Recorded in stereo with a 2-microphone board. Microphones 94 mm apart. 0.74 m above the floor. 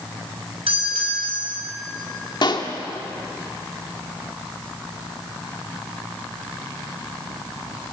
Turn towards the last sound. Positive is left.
turn(degrees=55)  # may be behind; listen again after turning